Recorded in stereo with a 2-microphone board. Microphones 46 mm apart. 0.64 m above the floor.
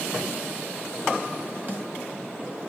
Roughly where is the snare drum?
Right.